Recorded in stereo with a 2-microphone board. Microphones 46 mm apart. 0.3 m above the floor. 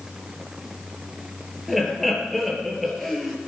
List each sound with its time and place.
1.7 s laughter: centre (ahead or behind), 5 m